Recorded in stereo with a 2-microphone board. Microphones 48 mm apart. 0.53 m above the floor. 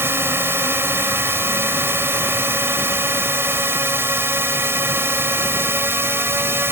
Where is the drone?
60° right (ahead or behind).